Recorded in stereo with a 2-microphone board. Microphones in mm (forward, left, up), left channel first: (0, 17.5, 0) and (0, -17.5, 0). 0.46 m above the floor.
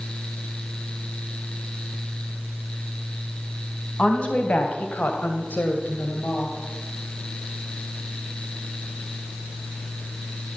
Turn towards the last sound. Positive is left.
turn(degrees=45)  # may be behind; listen again after turning